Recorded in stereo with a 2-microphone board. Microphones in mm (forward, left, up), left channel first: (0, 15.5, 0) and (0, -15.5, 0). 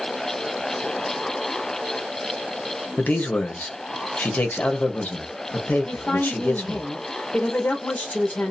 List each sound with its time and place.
3.0 s a man speaking: 80° left, 1.0 m
5.8 s a woman speaking: 80° left, 1.0 m